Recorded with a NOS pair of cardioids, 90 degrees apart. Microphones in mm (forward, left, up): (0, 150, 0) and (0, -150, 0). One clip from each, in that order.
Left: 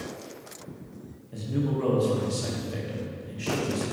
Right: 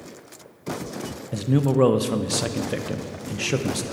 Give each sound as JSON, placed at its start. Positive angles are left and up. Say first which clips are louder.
{"t": 1.3, "sound": "a man speaking", "louder": "right 8 dB", "azimuth_deg": -70, "distance_m": 0.8}